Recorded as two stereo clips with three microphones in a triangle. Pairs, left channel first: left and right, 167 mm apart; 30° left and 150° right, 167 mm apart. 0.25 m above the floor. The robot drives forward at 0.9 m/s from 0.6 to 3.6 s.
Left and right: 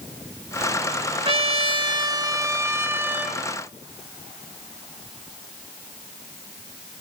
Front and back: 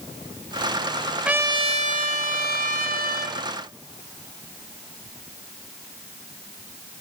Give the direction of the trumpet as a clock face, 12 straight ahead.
2 o'clock.